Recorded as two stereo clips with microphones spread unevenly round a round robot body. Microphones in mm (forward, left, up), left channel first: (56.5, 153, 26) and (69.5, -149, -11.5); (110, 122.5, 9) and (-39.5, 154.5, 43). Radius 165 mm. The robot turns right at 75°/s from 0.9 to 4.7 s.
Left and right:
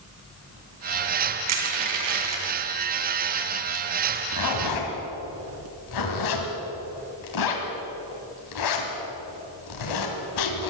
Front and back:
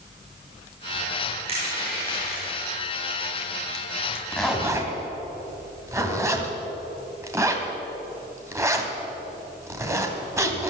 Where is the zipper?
60° left, 2.5 m; by 10.7 s 90° left, 2.5 m.